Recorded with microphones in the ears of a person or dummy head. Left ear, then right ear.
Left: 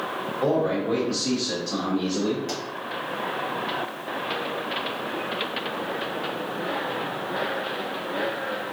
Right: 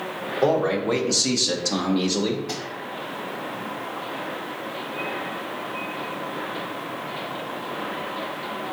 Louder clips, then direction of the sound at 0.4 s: Right 3 dB; 40° right (ahead or behind).